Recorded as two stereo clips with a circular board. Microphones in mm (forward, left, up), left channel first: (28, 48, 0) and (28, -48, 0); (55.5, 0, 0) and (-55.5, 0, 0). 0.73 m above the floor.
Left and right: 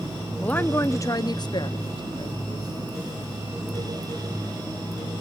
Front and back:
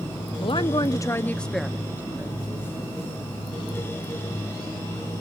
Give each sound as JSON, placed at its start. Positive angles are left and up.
{"t": 0.4, "sound": "a woman speaking", "azimuth_deg": 20, "distance_m": 0.9}